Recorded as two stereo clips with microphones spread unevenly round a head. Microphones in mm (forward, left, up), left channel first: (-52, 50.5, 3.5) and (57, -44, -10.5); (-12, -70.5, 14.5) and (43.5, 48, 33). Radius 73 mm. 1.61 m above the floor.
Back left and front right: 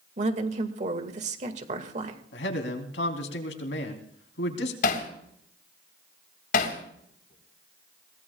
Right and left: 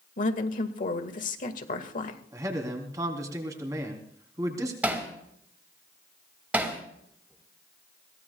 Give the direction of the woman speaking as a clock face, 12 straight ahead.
3 o'clock.